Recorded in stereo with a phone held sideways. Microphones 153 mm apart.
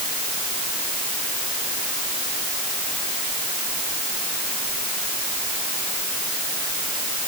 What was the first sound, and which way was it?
Only background noise.